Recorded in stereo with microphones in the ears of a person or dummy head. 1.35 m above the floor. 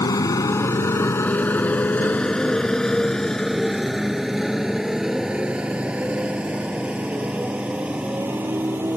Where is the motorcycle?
20° left (ahead or behind); by 9.0 s 10° right (ahead or behind).